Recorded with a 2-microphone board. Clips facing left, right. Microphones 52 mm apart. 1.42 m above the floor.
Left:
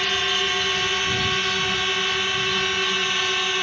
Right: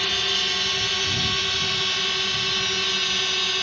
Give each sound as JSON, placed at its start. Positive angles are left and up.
{"t": 0.0, "sound": "a drone", "side_deg": 25}